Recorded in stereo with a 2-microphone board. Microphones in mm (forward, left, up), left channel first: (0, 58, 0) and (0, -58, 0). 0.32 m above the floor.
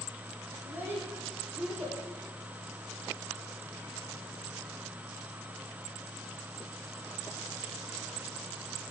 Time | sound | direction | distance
0.6 | a child speaking | 15° right (ahead or behind) | 10 m